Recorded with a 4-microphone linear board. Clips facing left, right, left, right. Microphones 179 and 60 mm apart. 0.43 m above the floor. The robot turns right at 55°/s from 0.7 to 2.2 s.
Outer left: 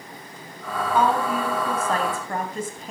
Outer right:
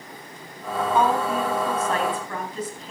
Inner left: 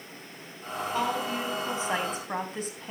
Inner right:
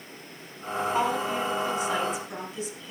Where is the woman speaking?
15° right, 3.5 m; by 2.9 s 55° left, 3.5 m.